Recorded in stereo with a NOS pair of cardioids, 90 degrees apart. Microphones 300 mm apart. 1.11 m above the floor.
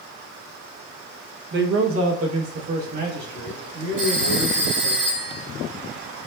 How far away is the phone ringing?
About 2.5 m.